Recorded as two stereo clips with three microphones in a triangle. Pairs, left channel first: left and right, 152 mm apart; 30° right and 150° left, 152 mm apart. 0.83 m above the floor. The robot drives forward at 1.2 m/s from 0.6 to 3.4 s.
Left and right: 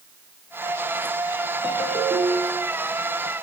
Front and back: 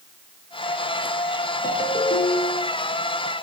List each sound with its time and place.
1.6 s a ringtone: 5° right, 5 m